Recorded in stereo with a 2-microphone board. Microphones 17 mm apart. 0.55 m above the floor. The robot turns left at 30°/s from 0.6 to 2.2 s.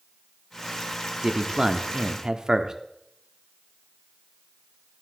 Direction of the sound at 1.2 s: 25° right (ahead or behind).